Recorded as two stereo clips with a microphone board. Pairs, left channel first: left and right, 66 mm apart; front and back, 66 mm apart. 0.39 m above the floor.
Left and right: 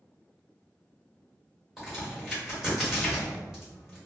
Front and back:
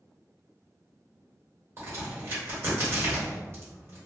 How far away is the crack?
About 1.5 m.